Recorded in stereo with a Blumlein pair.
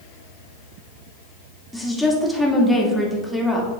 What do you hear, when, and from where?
1.7 s a woman speaking: straight ahead, 2 m